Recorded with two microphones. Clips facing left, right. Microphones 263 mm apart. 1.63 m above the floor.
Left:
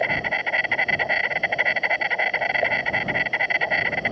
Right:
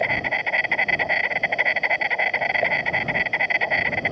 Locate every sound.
0.0 s an insect: centre (ahead or behind)